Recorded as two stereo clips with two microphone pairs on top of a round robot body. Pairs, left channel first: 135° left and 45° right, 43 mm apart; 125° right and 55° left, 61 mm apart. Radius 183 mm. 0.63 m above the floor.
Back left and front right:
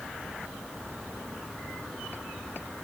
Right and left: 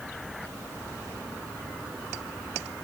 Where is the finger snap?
No finger snap in this recording.